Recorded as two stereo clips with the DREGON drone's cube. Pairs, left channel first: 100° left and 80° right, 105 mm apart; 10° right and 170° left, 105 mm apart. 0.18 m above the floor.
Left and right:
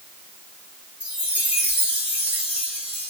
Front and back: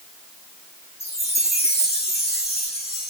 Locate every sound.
1.0 s a chime: 5° right, 4.5 m